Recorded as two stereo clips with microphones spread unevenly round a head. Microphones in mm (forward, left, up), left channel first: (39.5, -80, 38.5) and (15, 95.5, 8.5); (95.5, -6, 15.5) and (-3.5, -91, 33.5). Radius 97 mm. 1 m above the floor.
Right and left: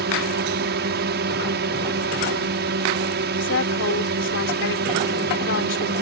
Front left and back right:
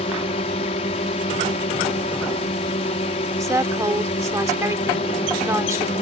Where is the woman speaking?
70° right.